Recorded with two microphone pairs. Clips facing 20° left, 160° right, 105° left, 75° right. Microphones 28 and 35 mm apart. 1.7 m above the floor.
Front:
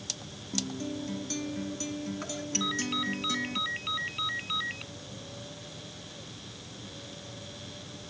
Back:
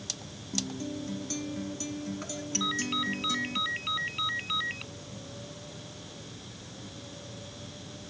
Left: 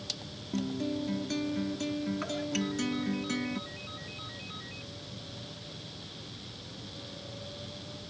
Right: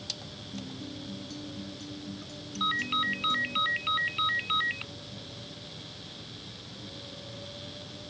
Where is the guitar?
100° left.